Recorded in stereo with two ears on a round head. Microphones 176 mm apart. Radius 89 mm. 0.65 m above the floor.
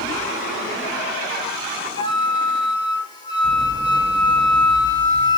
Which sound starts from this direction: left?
A flute, at 1.9 s.